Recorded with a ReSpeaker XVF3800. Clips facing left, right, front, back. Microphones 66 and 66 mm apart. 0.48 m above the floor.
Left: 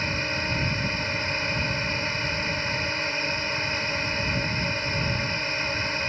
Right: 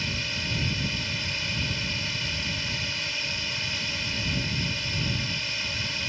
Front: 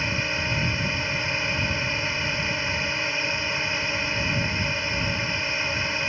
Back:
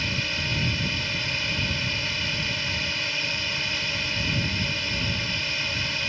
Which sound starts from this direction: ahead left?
A drone, at 0.0 s.